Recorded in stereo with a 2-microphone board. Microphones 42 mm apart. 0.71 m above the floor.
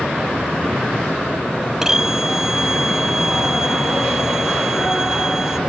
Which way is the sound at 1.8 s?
15° right (ahead or behind).